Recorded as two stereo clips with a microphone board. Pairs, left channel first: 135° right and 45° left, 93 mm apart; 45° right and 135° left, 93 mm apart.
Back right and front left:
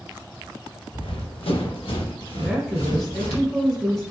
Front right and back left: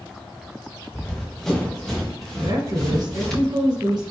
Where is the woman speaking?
140° left, 1.9 m.